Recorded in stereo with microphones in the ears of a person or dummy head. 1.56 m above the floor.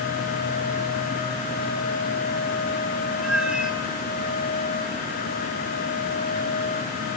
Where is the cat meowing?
5° right (ahead or behind), 2 m.